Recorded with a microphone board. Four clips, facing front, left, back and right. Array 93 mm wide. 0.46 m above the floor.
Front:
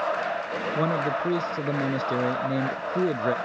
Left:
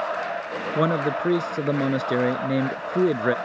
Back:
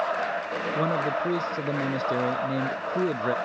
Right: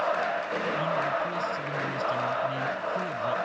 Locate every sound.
0.8 s a man speaking: 90° left